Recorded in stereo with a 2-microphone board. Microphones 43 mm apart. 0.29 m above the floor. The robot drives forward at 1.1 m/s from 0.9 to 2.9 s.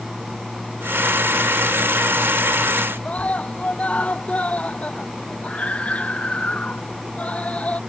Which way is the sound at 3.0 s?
30° left (ahead or behind).